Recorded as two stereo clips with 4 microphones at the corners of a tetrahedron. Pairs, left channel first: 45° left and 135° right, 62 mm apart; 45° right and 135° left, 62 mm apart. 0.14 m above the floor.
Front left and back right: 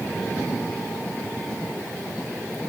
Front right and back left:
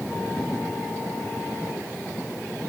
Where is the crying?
No crying in this recording.